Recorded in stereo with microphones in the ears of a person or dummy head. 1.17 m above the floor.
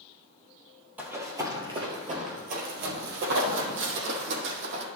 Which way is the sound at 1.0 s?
10° right (ahead or behind).